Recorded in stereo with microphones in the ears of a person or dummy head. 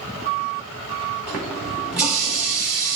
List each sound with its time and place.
1.3 s a running tap: 5° right (ahead or behind), 1.1 m